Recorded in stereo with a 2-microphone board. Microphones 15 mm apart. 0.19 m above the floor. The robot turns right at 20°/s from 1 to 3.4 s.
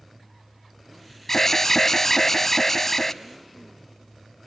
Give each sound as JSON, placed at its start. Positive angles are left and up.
{"t": 1.3, "sound": "an alarm", "side_deg": 25, "distance_m": 1.1}